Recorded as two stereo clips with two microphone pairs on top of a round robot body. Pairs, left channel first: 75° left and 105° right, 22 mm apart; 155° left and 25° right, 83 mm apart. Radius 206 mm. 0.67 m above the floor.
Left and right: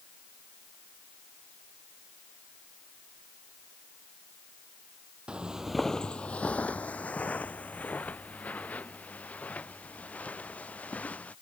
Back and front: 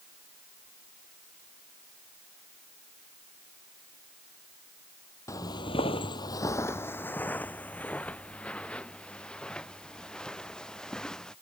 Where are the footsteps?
155° right; by 11.3 s 75° left.